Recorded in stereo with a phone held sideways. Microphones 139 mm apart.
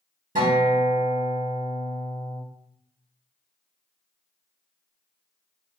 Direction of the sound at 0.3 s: 75° right (ahead or behind).